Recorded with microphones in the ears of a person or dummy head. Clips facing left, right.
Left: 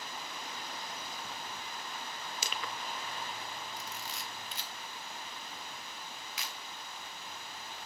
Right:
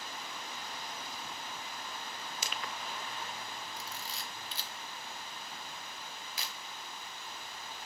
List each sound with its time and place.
2.4 s crushing: 85° left, 0.5 m
3.8 s a camera shutter: 30° right (ahead or behind), 1.4 m